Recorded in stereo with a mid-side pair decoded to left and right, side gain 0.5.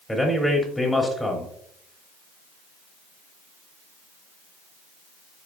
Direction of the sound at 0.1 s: 10° left.